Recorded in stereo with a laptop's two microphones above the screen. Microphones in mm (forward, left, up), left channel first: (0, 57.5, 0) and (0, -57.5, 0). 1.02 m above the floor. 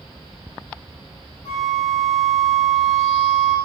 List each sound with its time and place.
1.4 s a flute: 55° left (ahead or behind), 1.3 m